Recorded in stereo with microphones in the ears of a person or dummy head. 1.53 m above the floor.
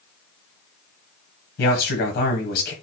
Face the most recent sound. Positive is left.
turn(degrees=55)  # may be behind; listen again after turning